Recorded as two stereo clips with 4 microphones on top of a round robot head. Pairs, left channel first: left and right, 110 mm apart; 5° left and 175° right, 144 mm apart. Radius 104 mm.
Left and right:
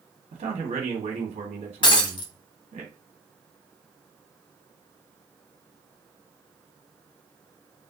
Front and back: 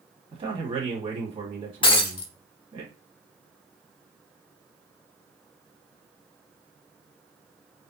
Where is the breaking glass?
50° left, 0.8 m.